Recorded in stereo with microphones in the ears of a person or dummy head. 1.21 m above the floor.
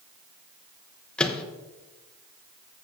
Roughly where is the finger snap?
I don't hear a finger snap.